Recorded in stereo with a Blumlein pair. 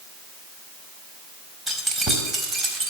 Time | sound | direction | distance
1.7 | keys jangling | 10° right | 4 m